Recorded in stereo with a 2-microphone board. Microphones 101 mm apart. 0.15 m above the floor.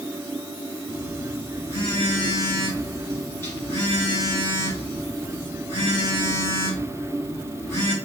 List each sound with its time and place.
0.9 s a phone buzzing: 25° left (ahead or behind), 1.7 m